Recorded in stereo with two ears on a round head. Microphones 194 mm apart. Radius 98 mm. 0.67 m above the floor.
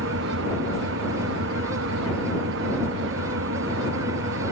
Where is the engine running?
65° right (ahead or behind).